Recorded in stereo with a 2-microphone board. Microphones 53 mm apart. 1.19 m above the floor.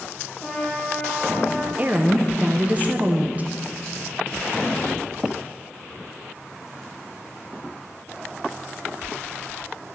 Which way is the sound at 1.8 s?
30° right (ahead or behind).